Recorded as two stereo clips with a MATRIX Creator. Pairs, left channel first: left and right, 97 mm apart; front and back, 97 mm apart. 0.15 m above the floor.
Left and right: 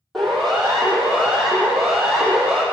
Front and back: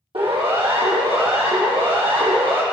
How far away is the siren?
About 6 m.